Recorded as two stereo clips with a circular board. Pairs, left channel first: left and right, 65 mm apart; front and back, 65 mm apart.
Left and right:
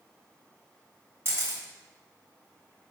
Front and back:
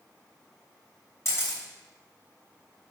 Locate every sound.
1.2 s a camera shutter: 40° right, 3.5 m